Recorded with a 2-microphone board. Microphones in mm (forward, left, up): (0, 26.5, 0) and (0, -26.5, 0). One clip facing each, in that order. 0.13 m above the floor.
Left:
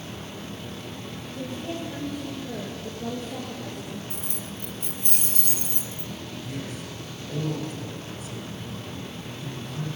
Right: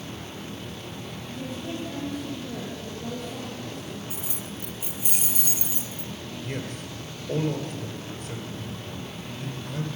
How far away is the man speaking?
About 2 m.